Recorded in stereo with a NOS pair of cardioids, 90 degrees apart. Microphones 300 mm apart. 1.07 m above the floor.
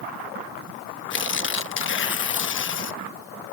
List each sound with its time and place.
1.1 s tearing paper: 40° left